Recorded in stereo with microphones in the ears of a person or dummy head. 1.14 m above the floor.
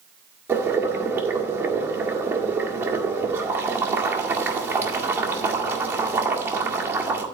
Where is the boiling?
10° right (ahead or behind), 1.7 m.